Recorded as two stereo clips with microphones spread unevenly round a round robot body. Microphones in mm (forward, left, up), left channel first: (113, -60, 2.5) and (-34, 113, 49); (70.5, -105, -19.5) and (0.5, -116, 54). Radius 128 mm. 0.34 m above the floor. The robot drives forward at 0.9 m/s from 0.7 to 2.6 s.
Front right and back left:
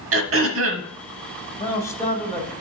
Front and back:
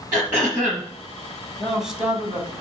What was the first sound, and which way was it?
Throat clearing, 100° left.